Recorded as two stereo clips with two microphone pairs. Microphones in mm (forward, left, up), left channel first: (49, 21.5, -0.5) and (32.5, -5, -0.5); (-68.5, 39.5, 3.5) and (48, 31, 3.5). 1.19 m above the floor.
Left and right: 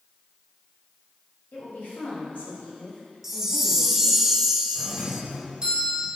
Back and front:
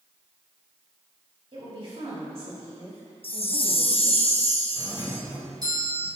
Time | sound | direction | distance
1.5 | a woman speaking | 40° left | 3 m
3.2 | a chime | 155° left | 0.5 m
4.8 | a doorbell | 60° right | 1.8 m